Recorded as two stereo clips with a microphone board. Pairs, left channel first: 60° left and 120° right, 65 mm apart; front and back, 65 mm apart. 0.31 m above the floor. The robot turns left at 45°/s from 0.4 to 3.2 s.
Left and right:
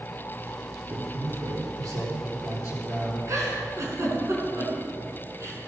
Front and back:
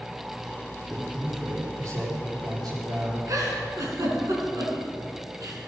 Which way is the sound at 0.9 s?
90° right.